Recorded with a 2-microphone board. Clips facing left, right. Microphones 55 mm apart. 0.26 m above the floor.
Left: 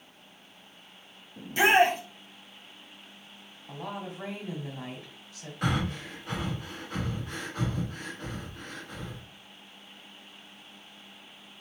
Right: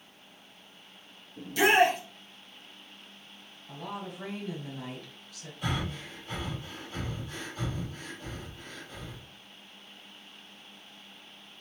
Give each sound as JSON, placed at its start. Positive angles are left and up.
{"t": 1.4, "sound": "a shout", "side_deg": 30, "distance_m": 1.2}
{"t": 3.7, "sound": "a woman speaking", "side_deg": 30, "distance_m": 1.9}
{"t": 5.6, "sound": "breathing", "side_deg": 75, "distance_m": 1.3}